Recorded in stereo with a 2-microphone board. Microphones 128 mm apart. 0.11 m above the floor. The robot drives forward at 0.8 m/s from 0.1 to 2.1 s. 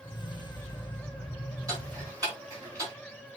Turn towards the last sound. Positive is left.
turn(degrees=-25)  # may be behind; listen again after turning